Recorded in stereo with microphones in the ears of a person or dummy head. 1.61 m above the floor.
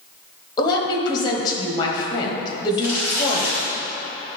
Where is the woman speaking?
30° left (ahead or behind), 1.2 m.